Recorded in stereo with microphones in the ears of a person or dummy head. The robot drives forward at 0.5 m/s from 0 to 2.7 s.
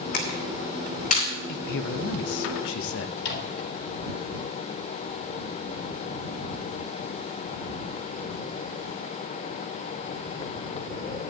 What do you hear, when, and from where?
0.1 s a camera shutter: 55° left (ahead or behind), 2.5 m; by 1.3 s 45° left (ahead or behind), 3 m
1.5 s a man speaking: 60° left (ahead or behind), 0.8 m; by 3.1 s 75° left (ahead or behind), 0.7 m
3.2 s a microwave: 65° left (ahead or behind), 3 m